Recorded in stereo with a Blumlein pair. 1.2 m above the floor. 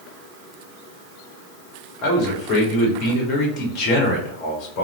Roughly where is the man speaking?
Ahead left.